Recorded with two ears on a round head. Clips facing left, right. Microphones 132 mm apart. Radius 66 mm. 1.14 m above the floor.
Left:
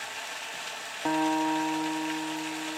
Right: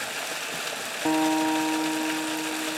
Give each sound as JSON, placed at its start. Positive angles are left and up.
{"t": 0.0, "sound": "running water", "side_deg": -60, "distance_m": 0.8}
{"t": 1.1, "sound": "a guitar", "side_deg": -20, "distance_m": 1.1}